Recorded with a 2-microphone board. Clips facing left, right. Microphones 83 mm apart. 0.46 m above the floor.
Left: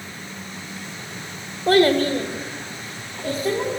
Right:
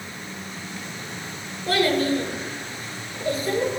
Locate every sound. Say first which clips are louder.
1.7 s a child speaking: left 5 dB; 40° left (ahead or behind), 0.9 m; by 3.7 s 75° left (ahead or behind), 3 m